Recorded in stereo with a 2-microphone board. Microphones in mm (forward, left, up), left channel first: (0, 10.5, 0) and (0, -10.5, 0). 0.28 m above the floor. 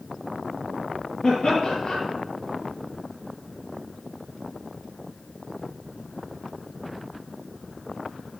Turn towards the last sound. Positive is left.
turn(degrees=40)  # may be behind; listen again after turning